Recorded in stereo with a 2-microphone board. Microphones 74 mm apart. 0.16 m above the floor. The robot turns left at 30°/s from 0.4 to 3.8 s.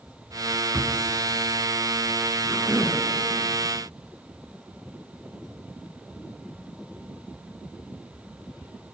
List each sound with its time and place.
0.7 s a drawer: 35° right (ahead or behind), 1.0 m
2.5 s a cough: 30° right (ahead or behind), 1.6 m; by 3.0 s 40° right (ahead or behind), 1.6 m